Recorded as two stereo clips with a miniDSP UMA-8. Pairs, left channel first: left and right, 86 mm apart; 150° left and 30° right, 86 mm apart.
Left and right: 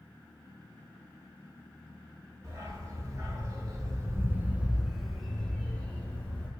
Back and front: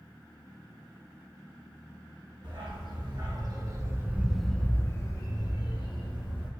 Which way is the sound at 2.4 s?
40° right.